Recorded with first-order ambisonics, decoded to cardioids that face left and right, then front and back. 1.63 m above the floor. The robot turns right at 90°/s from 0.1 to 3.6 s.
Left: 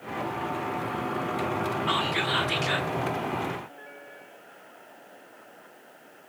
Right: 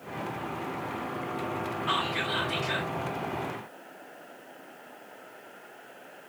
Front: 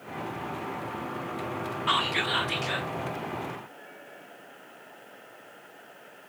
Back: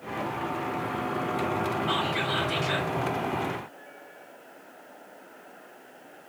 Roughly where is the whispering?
Ahead.